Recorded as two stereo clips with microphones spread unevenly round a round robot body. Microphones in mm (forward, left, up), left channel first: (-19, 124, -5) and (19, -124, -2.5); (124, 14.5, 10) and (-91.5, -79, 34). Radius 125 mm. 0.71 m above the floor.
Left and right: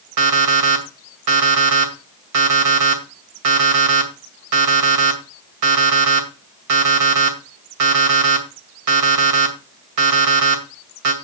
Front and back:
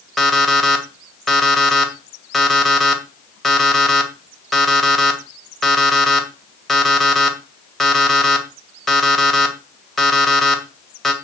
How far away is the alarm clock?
About 2.5 m.